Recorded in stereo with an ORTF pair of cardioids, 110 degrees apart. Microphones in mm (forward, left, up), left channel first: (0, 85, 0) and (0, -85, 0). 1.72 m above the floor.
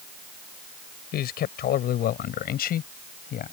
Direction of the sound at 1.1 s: 65° left.